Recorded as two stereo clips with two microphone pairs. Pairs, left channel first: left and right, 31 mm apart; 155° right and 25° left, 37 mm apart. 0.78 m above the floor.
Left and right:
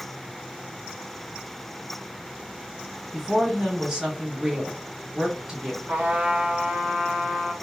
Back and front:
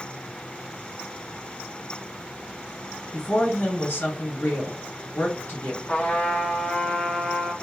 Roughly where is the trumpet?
Right.